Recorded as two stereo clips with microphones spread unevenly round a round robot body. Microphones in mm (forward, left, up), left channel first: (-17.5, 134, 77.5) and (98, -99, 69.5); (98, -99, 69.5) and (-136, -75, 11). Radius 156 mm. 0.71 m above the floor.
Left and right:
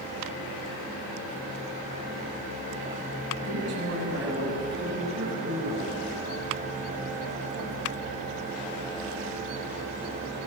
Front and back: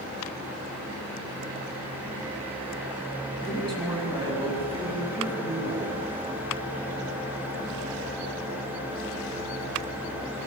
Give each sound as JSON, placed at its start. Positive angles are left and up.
{"t": 3.4, "sound": "a man speaking", "azimuth_deg": -115, "distance_m": 7.5}